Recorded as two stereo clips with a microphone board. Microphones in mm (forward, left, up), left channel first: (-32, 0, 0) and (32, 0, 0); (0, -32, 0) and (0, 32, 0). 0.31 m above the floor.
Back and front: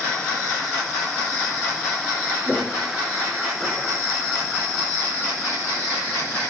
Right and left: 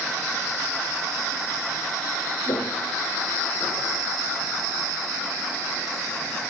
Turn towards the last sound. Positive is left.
turn(degrees=-55)